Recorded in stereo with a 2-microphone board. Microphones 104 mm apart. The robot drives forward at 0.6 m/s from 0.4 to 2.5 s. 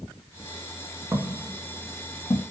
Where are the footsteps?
25° right (ahead or behind), 1.0 m; by 2.4 s 50° left (ahead or behind), 1.2 m.